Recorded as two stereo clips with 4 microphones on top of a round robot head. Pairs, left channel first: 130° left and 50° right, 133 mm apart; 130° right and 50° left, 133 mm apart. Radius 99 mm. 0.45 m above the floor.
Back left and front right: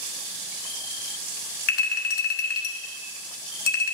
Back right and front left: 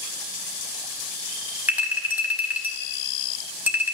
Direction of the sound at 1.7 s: 130° left.